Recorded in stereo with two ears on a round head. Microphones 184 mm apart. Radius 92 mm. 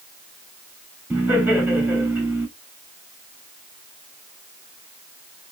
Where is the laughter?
5° right (ahead or behind), 2.5 m.